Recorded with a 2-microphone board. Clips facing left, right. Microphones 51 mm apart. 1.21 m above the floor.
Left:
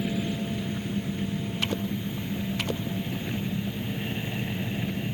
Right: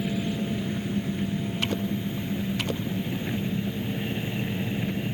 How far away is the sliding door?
I don't hear a sliding door.